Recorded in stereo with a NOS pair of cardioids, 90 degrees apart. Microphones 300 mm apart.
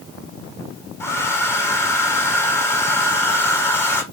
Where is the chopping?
I don't hear chopping.